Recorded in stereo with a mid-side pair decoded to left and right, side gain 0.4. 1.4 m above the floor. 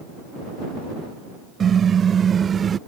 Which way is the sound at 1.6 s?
55° right.